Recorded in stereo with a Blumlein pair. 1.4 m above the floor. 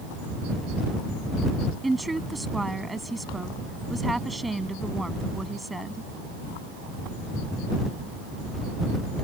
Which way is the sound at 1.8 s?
5° right.